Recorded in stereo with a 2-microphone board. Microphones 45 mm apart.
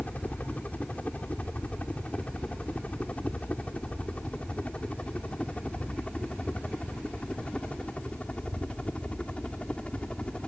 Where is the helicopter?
35° left (ahead or behind); by 10.5 s 25° left (ahead or behind).